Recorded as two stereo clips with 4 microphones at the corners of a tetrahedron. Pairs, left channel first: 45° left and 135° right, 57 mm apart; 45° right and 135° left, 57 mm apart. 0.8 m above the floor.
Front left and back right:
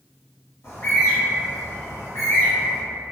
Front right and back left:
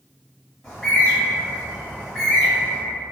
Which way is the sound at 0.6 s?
40° left.